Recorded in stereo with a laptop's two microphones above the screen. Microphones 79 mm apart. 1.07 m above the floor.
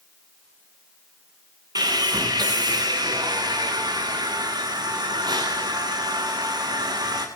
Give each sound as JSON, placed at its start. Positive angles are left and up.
{"t": 1.8, "sound": "sawing", "side_deg": -60, "distance_m": 9.5}